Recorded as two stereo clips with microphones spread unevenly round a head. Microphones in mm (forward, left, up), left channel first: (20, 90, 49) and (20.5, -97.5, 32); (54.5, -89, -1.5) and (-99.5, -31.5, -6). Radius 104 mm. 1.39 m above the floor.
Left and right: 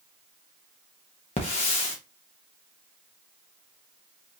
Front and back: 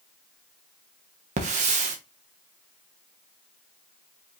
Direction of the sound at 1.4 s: 135° left.